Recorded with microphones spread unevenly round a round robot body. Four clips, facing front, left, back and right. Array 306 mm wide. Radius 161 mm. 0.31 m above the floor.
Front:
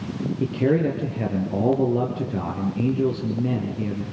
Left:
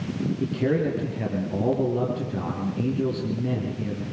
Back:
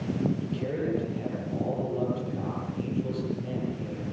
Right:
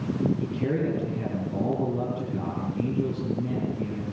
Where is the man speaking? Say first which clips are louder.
Left 3 dB, front 10 dB; 10° left, 6 m.